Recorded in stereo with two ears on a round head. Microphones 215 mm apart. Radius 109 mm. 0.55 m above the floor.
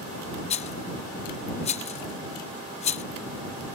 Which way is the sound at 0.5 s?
25° left (ahead or behind).